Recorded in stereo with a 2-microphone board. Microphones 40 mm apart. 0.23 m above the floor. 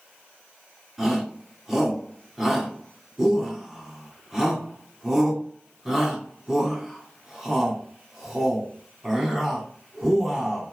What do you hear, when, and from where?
1.0 s a shout: 10° right (ahead or behind), 2.5 m